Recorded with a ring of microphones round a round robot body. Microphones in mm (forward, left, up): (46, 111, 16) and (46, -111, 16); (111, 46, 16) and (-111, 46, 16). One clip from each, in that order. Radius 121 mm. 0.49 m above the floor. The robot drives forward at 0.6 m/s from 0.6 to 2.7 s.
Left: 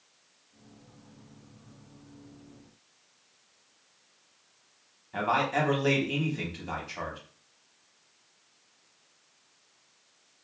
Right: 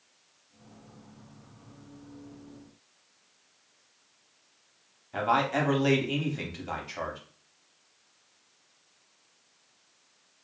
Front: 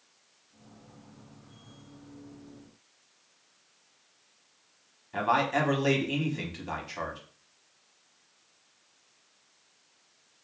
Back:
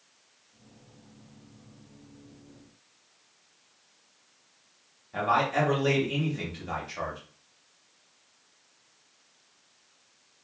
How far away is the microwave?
No microwave in this recording.